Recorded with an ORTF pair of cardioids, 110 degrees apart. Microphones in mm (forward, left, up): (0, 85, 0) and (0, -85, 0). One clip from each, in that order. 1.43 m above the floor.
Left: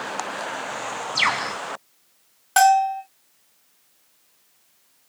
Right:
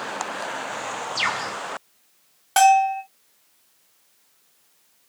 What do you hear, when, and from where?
1.1 s a bird: 30° left, 1.1 m
2.6 s a bell: 5° right, 1.2 m